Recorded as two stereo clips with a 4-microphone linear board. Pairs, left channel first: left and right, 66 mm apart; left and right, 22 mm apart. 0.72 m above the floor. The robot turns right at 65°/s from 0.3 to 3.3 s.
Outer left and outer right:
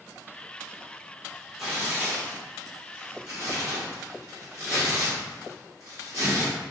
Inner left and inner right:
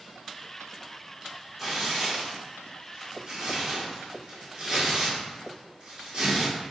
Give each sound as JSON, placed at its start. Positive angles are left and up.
{"t": 1.6, "sound": "tearing paper", "side_deg": -5, "distance_m": 1.7}